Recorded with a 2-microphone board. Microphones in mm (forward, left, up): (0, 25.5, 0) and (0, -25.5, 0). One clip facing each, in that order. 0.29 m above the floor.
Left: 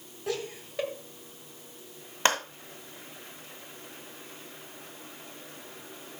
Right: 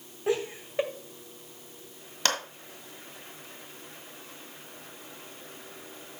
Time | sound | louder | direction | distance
0.3 | laughter | right 5 dB | 25° right (ahead or behind) | 1.5 m
2.2 | a clap | left 4 dB | 25° left (ahead or behind) | 1.8 m